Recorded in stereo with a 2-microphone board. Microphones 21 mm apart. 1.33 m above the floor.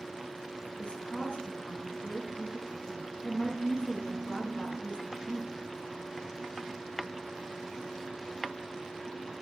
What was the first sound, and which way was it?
A woman speaking, 65° left (ahead or behind).